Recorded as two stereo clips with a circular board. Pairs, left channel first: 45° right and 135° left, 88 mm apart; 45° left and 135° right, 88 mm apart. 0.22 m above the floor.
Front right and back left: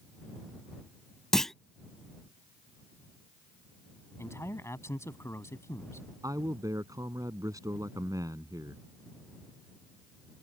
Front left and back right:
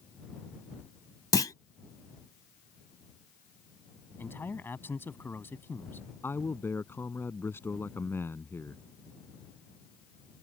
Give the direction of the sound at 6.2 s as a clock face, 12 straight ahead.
9 o'clock.